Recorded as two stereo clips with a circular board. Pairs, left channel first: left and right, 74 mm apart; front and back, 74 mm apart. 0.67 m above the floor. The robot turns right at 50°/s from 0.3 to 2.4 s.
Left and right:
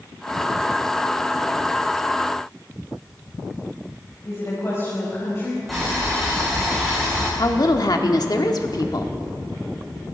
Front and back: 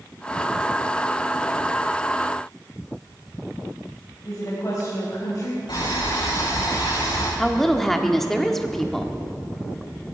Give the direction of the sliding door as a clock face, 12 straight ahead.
No sliding door in this recording.